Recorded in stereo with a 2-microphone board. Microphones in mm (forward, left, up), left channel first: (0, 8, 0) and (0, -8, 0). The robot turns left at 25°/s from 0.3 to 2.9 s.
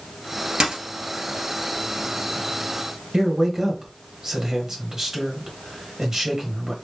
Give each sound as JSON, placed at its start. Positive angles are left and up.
{"t": 0.6, "sound": "a dropped coin", "side_deg": -65, "distance_m": 2.0}
{"t": 3.1, "sound": "a man speaking", "side_deg": -35, "distance_m": 1.3}